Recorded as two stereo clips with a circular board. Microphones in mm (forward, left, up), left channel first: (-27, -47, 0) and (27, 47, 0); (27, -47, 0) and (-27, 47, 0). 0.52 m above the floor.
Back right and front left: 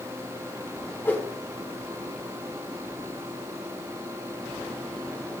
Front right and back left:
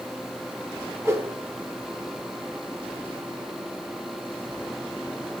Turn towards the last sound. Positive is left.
turn(degrees=175)